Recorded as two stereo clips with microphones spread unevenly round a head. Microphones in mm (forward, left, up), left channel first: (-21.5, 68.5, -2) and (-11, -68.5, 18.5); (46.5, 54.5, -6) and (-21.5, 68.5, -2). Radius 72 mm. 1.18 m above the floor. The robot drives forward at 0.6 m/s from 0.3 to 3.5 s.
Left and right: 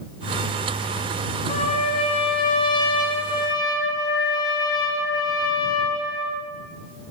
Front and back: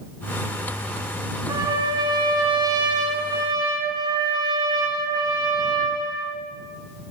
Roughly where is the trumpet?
Behind left.